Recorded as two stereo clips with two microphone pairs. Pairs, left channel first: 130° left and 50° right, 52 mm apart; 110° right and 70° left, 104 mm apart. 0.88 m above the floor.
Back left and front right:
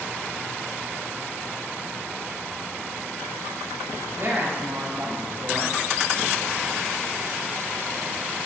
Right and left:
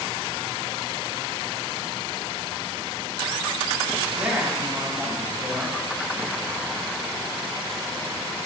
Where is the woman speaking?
10° right, 6 m.